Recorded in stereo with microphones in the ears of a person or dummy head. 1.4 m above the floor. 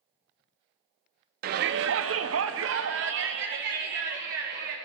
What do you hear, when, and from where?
1.4 s a shout: 50° right (ahead or behind), 0.6 m; by 4.8 s 55° right (ahead or behind), 1.9 m